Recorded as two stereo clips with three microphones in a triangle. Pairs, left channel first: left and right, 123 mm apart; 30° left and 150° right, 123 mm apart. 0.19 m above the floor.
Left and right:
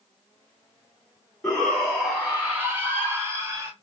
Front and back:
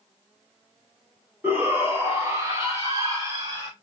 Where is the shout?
165° left, 1.8 m; by 3.7 s 130° right, 2 m.